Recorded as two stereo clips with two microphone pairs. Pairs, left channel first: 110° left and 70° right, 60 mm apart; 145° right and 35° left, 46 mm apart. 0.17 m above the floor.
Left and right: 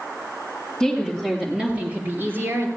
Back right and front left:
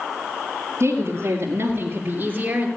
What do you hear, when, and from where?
0.8 s a woman speaking: 30° left, 3 m; by 2.7 s 30° right, 3 m